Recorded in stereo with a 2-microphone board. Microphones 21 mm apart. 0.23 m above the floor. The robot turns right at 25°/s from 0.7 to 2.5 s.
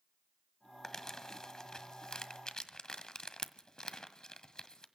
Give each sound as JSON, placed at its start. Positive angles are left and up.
{"t": 0.8, "sound": "crumpling", "side_deg": 25, "distance_m": 1.6}